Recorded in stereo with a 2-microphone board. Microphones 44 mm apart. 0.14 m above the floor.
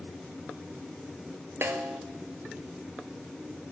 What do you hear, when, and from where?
1.6 s a snare drum: 70° right (ahead or behind), 0.6 m